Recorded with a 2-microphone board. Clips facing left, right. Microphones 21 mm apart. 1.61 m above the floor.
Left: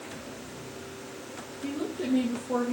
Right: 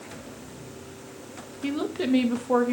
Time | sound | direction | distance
1.6 | a woman speaking | 60° right (ahead or behind) | 2 m